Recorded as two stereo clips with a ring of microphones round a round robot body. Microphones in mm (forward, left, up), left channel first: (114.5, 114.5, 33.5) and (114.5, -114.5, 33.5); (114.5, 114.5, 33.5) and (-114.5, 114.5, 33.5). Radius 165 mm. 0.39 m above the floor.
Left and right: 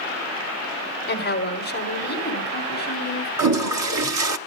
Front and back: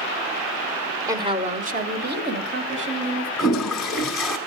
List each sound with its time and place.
1.1 s a woman speaking: 110° left, 1.7 m; by 3.3 s 150° left, 4 m
3.4 s a toilet flushing: 90° right, 0.9 m